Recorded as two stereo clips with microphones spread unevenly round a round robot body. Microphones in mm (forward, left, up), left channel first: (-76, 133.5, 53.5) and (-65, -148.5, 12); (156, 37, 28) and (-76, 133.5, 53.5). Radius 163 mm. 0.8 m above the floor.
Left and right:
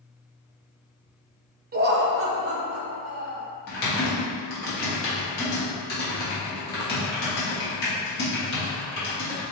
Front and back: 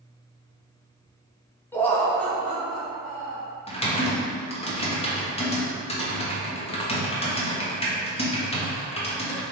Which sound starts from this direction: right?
Laughter, at 1.7 s.